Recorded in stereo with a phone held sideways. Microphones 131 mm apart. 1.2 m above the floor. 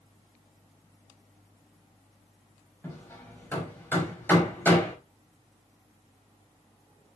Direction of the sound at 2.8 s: 15° left (ahead or behind).